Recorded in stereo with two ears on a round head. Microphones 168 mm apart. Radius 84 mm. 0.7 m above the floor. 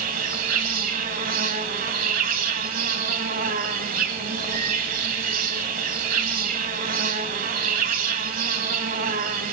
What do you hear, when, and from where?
0.0 s an insect: 45° right (ahead or behind), 1.1 m